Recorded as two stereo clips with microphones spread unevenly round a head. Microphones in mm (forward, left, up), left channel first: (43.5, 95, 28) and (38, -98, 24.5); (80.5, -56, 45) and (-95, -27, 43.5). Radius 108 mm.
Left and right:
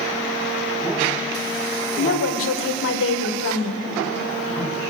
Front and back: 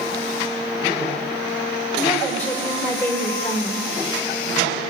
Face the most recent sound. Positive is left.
turn(degrees=70)